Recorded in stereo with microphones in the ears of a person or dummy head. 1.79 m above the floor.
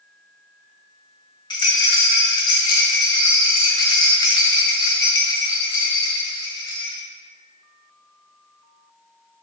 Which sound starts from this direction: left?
A rattle, at 1.5 s.